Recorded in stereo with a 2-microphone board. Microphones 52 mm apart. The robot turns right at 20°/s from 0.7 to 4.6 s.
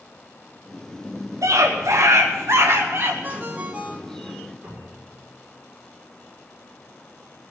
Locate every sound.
1.4 s a scream: 80° right, 1.6 m; by 3.1 s 50° right, 1.6 m
3.2 s a ringtone: 40° right (ahead or behind), 1.7 m; by 4.4 s 20° right (ahead or behind), 1.7 m
4.6 s a cupboard door: 20° right (ahead or behind), 6.5 m